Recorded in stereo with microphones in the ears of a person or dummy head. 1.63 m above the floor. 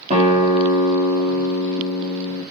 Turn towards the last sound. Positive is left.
turn(degrees=-45)  # may be behind; listen again after turning